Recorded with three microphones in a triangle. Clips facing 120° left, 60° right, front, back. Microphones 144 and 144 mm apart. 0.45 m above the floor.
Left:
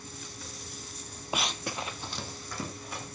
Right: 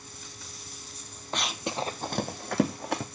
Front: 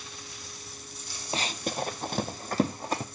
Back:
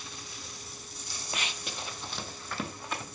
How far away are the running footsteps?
About 0.6 m.